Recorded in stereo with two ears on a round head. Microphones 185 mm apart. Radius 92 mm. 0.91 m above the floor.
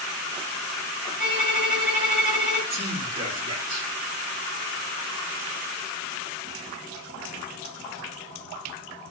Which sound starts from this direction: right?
A man speaking, at 2.7 s.